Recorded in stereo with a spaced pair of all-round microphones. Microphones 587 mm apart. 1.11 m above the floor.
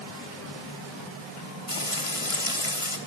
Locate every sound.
1.7 s frying: 60° left (ahead or behind), 2.5 m